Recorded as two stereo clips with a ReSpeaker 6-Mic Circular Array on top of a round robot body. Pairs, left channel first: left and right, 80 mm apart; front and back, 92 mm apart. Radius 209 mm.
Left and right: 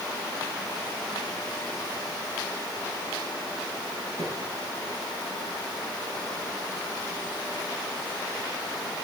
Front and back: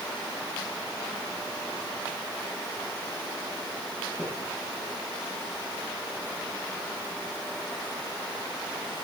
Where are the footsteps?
75° right, 5.5 m.